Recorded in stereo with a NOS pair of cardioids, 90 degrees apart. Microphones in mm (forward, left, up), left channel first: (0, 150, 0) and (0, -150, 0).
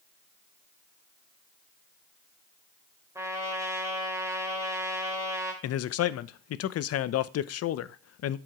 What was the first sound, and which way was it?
A trumpet, 10° right.